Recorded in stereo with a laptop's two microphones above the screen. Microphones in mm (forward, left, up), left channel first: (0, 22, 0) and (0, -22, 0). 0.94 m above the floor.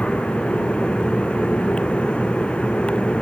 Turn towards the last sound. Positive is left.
turn(degrees=25)  # may be behind; listen again after turning